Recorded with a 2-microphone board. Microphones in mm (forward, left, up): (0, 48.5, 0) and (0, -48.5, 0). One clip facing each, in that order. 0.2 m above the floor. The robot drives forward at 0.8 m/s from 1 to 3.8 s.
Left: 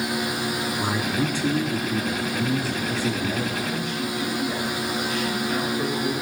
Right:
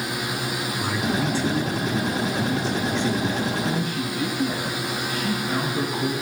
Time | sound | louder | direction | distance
0.8 | a man speaking | right 2 dB | 20° left (ahead or behind) | 1.3 m
3.6 | a man speaking | right 2 dB | 40° right (ahead or behind) | 1.8 m